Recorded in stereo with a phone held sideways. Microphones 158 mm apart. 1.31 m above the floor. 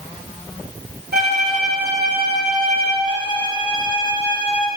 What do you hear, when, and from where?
1.1 s a violin: 80° right, 3.5 m
3.0 s a violin: 35° left (ahead or behind), 2.5 m